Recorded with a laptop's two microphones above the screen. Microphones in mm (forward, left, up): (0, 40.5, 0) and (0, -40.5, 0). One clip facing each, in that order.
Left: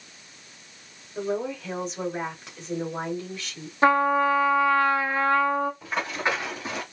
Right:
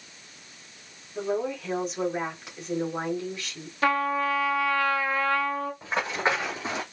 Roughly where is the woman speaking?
Centre.